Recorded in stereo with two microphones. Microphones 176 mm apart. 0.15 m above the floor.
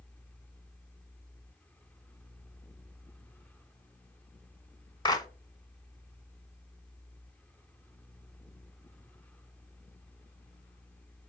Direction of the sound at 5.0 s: 25° left (ahead or behind).